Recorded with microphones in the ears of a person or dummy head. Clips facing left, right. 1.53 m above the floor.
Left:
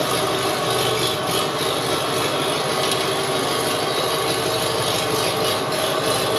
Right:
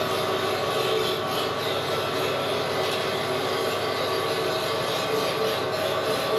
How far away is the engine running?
About 0.9 m.